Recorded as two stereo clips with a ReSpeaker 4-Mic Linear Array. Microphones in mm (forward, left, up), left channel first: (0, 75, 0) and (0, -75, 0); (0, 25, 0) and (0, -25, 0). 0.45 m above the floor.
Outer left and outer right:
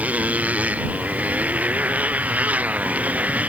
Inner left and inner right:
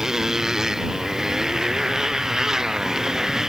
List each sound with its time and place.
0.0 s a motorcycle: 10° right (ahead or behind)